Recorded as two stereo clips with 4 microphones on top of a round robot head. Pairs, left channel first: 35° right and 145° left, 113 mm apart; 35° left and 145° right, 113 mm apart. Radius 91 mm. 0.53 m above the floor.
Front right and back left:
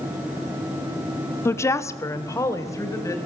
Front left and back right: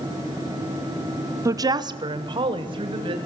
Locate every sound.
1.4 s a woman speaking: 95° right, 0.9 m; by 3.2 s 100° right, 3.5 m